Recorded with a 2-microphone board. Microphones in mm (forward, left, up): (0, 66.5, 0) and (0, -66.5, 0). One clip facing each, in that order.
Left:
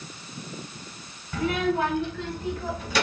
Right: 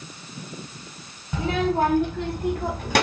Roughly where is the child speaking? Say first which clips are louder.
Right 2 dB; right.